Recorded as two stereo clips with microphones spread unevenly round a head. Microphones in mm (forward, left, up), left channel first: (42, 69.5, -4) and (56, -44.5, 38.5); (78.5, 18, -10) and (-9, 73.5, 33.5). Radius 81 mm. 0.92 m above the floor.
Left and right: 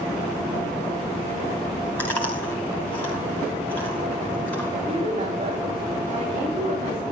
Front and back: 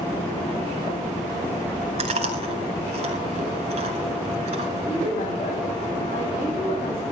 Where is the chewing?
175° right, 3 m.